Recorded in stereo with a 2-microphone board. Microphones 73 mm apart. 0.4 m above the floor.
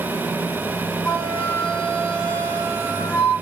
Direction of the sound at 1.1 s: 25° left (ahead or behind).